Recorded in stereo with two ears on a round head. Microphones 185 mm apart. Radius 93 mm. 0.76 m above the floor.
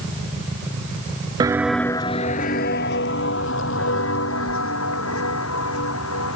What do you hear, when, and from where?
1.4 s footsteps: 20° right (ahead or behind); by 6.3 s 75° left (ahead or behind)